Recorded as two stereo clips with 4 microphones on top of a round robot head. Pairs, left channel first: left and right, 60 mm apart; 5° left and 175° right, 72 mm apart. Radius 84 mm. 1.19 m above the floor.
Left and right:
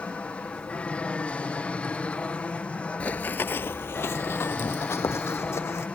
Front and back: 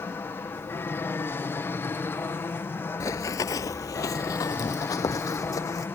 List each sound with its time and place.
0.0 s an aircraft: 35° left
3.0 s running footsteps: 30° left; by 5.8 s 45° left